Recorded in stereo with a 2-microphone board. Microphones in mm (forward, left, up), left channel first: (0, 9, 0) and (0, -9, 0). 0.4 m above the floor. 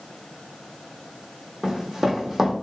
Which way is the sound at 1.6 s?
25° right (ahead or behind).